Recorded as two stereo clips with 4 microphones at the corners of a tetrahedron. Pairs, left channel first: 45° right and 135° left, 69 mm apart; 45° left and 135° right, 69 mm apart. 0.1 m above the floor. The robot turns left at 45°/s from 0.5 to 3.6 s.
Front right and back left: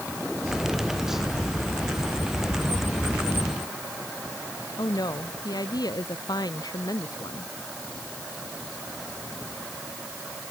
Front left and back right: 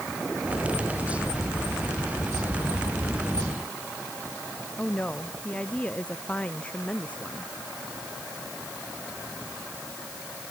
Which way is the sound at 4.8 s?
25° right.